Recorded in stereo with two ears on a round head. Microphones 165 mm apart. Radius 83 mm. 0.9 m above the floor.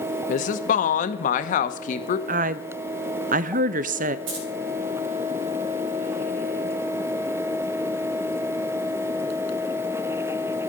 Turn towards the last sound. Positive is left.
turn(degrees=-70)  # may be behind; listen again after turning